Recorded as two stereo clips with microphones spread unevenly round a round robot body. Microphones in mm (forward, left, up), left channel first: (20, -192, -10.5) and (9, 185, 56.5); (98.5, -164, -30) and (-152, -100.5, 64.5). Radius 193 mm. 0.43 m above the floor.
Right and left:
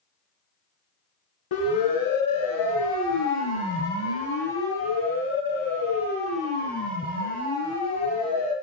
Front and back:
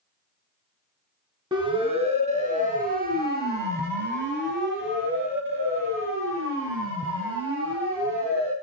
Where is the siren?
115° right, 4 m; by 8.5 s 160° right, 10 m.